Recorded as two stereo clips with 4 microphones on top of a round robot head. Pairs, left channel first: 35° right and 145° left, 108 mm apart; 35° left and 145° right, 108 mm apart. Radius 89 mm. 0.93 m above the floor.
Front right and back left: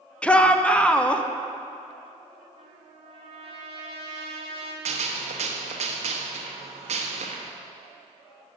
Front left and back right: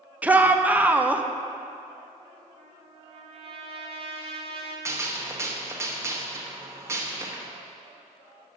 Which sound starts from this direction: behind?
A trumpet, at 2.6 s.